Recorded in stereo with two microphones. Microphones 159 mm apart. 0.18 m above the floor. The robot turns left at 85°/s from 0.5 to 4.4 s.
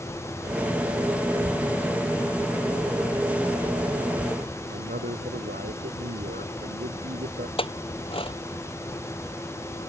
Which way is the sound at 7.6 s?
35° left (ahead or behind).